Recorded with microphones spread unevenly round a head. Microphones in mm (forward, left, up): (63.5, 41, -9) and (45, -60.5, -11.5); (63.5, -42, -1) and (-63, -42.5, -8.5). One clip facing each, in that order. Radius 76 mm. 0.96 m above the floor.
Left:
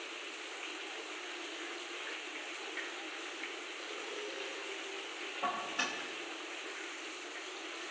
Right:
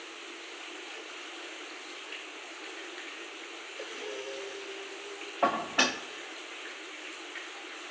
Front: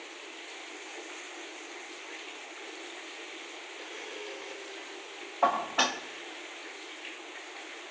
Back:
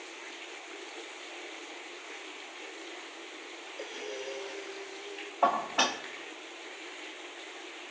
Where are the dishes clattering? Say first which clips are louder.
Right 10 dB, even; 95° right, 1.0 m.